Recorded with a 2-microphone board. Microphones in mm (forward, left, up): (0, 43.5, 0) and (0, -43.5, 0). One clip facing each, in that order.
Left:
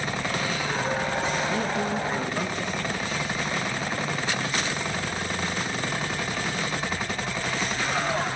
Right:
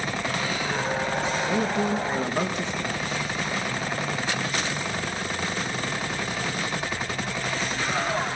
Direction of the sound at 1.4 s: 20° right (ahead or behind).